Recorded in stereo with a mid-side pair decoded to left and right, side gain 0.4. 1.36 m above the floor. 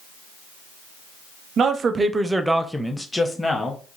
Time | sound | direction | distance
1.6 | a man speaking | 65° right | 0.5 m